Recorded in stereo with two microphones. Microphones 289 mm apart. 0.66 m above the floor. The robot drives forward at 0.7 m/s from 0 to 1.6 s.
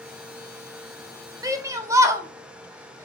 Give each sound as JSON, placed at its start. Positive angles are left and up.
{"t": 1.4, "sound": "a shout", "side_deg": -10, "distance_m": 0.6}